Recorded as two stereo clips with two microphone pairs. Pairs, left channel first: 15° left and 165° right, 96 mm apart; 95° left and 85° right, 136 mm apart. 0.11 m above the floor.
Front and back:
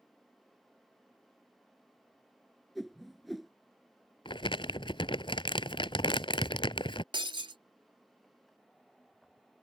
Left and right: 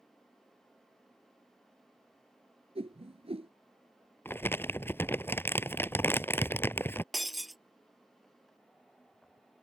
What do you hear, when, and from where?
2.8 s a whoosh: 75° right
4.2 s crumpling: 25° left
7.1 s breaking glass: 175° right